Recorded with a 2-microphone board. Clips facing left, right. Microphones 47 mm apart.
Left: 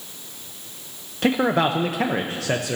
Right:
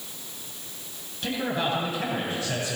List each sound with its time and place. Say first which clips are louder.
1.2 s a man speaking: left 8 dB; 70° left (ahead or behind), 0.9 m